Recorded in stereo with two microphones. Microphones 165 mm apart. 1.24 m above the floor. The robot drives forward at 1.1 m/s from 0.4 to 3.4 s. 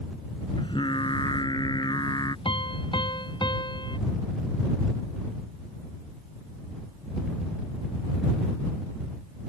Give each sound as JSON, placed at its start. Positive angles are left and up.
{"t": 0.6, "sound": "singing", "side_deg": 30}
{"t": 2.5, "sound": "a piano", "side_deg": 30}